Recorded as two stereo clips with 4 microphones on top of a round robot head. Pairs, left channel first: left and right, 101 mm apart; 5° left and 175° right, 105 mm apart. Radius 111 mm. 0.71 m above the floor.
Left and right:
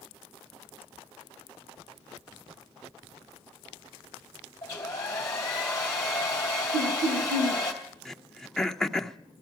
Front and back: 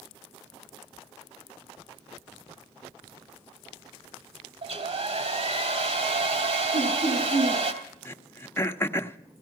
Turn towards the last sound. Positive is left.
turn(degrees=15)